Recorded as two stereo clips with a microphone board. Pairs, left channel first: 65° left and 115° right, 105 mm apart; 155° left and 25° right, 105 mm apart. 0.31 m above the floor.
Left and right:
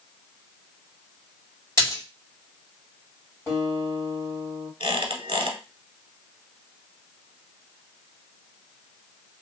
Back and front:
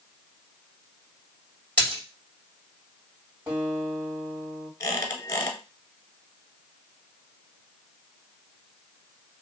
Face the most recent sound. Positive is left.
turn(degrees=-145)